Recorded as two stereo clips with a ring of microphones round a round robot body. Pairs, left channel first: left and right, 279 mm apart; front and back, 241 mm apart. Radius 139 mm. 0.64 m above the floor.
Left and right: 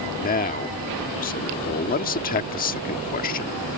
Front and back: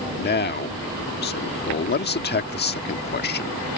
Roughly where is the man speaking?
Ahead left.